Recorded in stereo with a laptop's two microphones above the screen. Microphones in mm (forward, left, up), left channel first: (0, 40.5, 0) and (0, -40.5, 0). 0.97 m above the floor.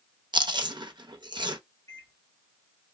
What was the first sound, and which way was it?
Chewing, 70° right (ahead or behind).